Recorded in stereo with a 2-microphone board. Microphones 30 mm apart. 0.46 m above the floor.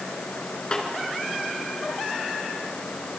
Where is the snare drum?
30° left (ahead or behind), 4 m.